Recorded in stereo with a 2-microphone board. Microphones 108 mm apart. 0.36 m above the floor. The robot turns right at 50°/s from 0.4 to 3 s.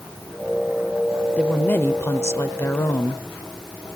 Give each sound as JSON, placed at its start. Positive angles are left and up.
{"t": 1.4, "sound": "a woman speaking", "side_deg": 10, "distance_m": 0.8}